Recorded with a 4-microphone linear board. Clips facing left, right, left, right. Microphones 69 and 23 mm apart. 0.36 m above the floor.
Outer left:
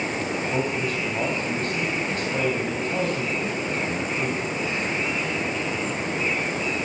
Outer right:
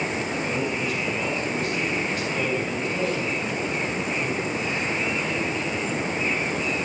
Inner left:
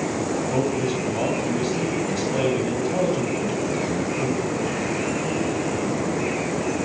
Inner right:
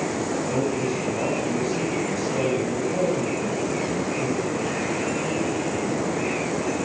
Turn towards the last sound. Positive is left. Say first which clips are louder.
# outer left 1 dB, inner left 2 dB
turn(degrees=45)  # may be behind; listen again after turning